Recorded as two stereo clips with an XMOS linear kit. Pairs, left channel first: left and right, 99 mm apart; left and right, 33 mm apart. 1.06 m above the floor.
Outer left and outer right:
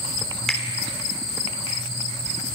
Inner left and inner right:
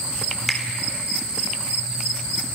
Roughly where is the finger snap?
Centre.